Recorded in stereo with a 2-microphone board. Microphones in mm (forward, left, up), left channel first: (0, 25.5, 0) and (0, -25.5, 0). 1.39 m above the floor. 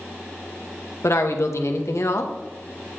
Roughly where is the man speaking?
Left.